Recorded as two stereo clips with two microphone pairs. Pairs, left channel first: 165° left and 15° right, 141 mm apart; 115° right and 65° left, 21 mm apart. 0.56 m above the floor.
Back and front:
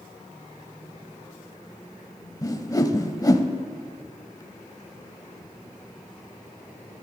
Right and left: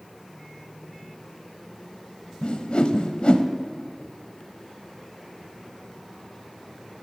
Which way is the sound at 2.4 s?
135° right.